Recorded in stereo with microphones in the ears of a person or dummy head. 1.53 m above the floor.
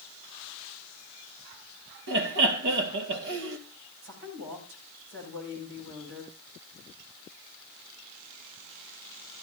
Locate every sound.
2.1 s laughter: 65° right (ahead or behind), 1.8 m
4.0 s a woman speaking: 70° right (ahead or behind), 9 m